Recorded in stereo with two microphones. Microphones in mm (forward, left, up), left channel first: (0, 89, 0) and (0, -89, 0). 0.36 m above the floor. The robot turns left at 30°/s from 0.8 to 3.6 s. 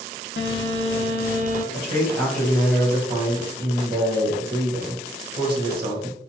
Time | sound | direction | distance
0.4 | a phone buzzing | 65° left (ahead or behind) | 0.7 m
1.7 | a man speaking | 25° left | 1.7 m